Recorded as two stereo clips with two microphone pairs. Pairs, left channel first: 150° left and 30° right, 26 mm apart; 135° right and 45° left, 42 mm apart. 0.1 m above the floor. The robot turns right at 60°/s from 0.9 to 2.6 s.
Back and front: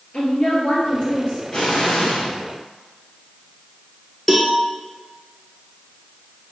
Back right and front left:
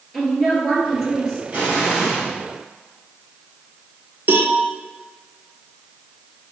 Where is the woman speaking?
135° left, 1.8 m; by 1.4 s 165° left, 1.8 m.